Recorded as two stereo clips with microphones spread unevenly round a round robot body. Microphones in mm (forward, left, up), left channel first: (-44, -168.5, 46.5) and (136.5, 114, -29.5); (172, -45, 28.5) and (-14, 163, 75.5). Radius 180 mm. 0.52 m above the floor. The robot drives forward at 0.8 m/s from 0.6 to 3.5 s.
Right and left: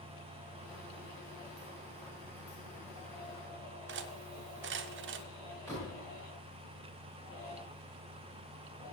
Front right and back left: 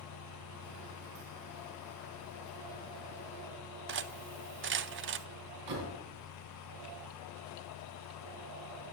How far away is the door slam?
About 4 m.